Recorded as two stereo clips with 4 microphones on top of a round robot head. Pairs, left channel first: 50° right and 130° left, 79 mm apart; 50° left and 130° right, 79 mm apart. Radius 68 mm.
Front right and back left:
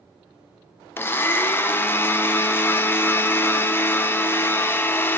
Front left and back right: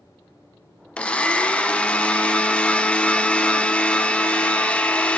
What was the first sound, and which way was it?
A blender, 15° right.